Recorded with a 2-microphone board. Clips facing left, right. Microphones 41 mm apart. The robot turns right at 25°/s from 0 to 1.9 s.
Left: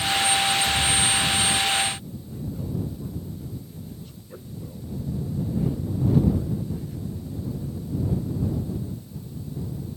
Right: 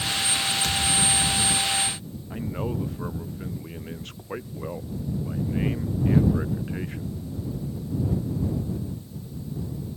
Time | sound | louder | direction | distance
0.6 | a thud | left 2 dB | 110° right | ?
2.3 | a man speaking | right 3 dB | 75° right (ahead or behind) | ?